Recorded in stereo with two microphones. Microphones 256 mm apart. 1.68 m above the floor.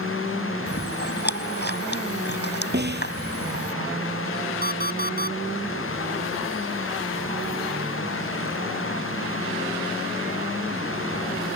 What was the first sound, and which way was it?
Chewing, 40° left (ahead or behind).